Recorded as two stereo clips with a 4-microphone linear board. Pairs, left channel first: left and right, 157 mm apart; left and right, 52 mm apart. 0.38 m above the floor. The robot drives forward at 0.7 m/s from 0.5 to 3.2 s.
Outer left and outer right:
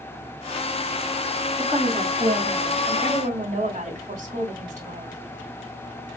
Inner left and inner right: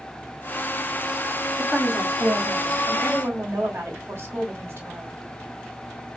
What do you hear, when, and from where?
1.6 s a woman speaking: 35° right (ahead or behind), 3 m; by 5.2 s 50° right (ahead or behind), 2 m